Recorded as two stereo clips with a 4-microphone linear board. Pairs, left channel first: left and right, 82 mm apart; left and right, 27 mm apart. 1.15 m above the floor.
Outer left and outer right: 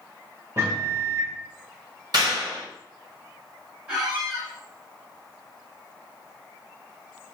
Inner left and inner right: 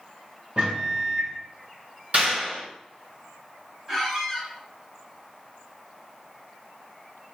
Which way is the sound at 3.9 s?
15° right (ahead or behind).